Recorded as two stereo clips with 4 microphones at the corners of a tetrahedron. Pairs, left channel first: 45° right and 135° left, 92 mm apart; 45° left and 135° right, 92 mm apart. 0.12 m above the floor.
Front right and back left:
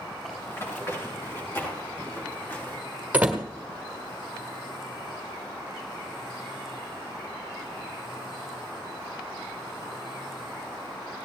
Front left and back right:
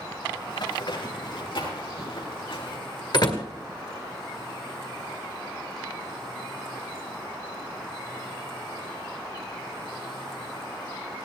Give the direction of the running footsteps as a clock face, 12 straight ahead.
11 o'clock.